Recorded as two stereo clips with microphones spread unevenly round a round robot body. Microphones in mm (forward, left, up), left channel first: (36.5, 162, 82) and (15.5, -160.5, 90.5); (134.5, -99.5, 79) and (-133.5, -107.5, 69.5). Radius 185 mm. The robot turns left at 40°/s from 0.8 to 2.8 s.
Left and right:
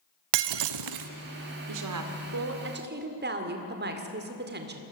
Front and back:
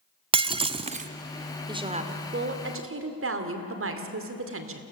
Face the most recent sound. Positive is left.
turn(degrees=-150)